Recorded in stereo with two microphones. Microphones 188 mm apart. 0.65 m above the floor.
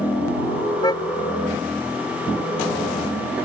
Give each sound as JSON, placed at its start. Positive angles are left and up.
{"t": 0.8, "sound": "a car horn", "side_deg": 20}